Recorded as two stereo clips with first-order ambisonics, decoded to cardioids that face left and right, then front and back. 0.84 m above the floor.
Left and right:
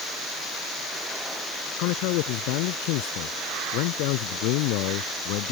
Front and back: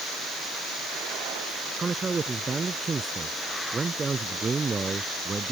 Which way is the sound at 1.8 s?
105° left.